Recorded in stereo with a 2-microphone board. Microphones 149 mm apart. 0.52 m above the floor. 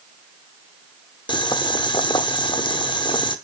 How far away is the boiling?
About 0.9 m.